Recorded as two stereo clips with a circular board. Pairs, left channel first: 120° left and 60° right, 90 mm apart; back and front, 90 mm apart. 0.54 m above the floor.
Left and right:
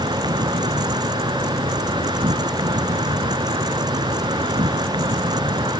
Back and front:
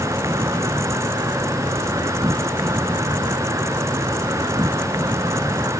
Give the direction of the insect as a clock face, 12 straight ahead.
2 o'clock.